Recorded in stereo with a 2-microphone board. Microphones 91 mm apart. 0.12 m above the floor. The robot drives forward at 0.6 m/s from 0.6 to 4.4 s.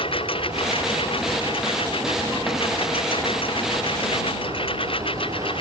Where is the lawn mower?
85° left; by 5.6 s 80° left.